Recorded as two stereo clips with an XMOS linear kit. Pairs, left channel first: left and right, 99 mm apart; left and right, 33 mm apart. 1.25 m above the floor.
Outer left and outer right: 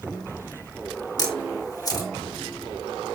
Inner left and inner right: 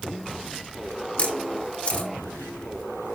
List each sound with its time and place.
1.2 s a camera shutter: 40° left (ahead or behind), 1.9 m